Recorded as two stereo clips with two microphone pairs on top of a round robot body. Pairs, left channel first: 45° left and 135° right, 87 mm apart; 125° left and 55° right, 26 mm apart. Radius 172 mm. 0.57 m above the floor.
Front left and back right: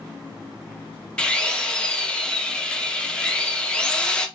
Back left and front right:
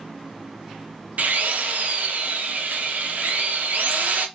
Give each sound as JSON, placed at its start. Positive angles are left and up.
{"t": 1.2, "sound": "a drill", "azimuth_deg": -40, "distance_m": 0.6}